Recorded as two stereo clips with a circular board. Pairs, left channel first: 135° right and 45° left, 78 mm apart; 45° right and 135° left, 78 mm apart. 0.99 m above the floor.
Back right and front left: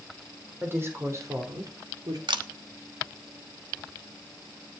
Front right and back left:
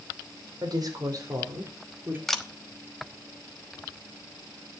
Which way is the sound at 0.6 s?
110° left.